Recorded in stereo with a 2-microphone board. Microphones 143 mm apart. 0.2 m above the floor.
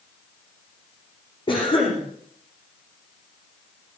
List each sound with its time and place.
1.5 s a cough: 35° left (ahead or behind), 10 m